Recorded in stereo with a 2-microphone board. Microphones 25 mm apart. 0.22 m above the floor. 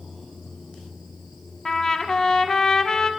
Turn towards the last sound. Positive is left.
turn(degrees=20)  # may be behind; listen again after turning